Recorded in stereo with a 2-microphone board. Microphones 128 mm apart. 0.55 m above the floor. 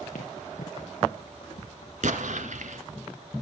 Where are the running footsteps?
80° left, 4.5 m; by 1.9 s 85° left, 5.5 m.